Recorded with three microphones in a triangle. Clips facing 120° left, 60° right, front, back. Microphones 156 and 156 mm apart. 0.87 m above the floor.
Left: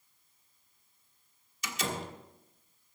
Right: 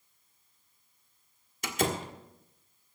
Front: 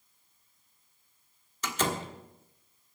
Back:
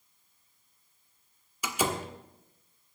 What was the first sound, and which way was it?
A door slam, 100° right.